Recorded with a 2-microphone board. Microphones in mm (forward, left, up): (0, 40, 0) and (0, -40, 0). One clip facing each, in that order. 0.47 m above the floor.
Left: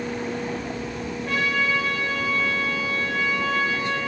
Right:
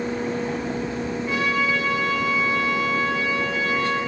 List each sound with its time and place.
1.2 s a trumpet: 75° left (ahead or behind), 6 m